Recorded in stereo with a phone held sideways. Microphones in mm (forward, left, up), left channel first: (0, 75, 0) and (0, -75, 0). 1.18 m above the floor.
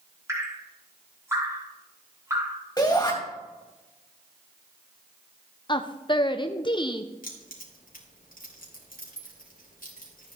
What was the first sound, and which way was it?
Dripping, 20° right (ahead or behind).